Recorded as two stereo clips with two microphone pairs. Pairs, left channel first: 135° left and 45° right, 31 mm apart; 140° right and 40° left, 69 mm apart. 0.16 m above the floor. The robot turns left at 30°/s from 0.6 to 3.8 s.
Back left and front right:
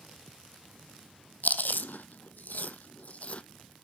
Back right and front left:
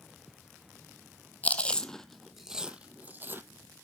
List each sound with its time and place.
1.4 s chewing: 155° left, 0.9 m; by 3.4 s 95° left, 0.9 m